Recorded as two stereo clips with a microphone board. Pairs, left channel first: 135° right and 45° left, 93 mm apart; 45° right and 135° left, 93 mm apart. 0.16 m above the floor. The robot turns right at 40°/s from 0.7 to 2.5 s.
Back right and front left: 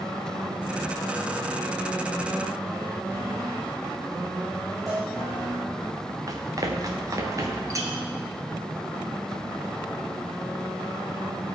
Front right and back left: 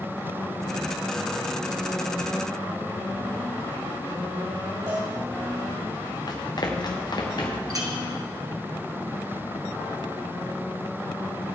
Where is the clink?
95° left, 1.8 m.